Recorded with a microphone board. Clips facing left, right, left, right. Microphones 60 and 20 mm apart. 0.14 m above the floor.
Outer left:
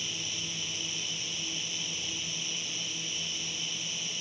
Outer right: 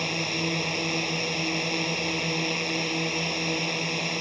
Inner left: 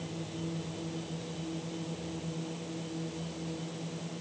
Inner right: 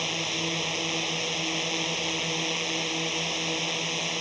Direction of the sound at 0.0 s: 60° right (ahead or behind).